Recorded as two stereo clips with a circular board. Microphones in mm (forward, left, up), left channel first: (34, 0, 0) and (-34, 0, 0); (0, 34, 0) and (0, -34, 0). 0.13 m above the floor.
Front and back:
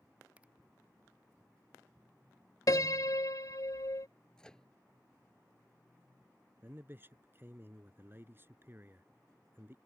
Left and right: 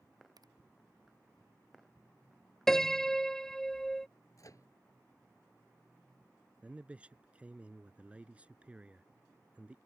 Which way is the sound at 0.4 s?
110° right.